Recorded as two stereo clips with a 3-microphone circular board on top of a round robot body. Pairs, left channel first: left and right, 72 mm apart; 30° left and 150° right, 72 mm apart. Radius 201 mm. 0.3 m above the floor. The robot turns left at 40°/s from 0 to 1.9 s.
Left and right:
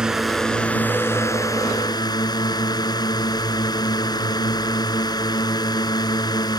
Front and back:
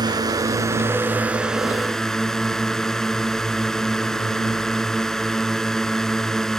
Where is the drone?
170° right; by 6.6 s 115° left.